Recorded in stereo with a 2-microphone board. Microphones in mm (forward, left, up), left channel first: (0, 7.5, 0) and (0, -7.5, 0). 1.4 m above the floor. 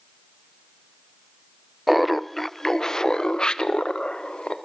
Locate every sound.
1.9 s laughter: 5° right (ahead or behind), 0.8 m; by 4.5 s 75° left (ahead or behind), 1.5 m